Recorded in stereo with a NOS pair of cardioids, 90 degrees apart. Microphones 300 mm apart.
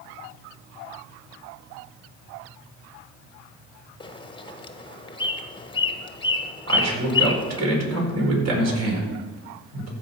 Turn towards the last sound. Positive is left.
turn(degrees=-55)